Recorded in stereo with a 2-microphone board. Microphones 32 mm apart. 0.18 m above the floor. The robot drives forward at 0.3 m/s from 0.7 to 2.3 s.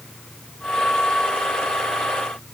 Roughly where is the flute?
No flute in this recording.